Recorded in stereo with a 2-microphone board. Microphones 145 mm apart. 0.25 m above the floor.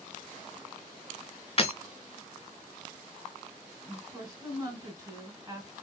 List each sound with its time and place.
1.6 s breaking glass: 45° left (ahead or behind), 0.8 m
3.8 s a woman speaking: 25° right (ahead or behind), 2 m